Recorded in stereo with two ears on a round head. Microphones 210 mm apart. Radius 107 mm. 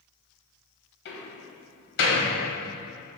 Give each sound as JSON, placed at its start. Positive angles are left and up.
{"t": 1.1, "sound": "a door slam", "side_deg": 55, "distance_m": 3.0}